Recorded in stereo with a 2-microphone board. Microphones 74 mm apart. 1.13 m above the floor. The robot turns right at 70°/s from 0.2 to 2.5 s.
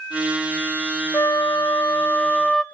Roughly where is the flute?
Left.